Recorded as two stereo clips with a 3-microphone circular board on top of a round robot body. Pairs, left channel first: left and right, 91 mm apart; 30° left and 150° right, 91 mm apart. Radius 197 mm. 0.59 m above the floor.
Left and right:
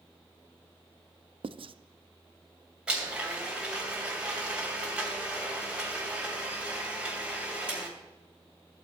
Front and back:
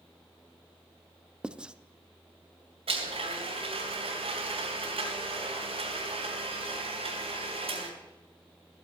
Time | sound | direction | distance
1.4 | writing | 70° right | 0.6 m
2.9 | a blender | 170° right | 3 m